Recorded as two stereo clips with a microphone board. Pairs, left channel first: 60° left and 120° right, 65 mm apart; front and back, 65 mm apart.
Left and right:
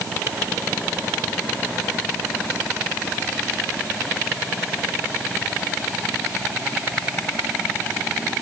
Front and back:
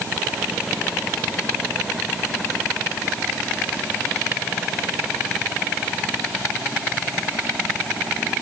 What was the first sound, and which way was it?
Only background noise.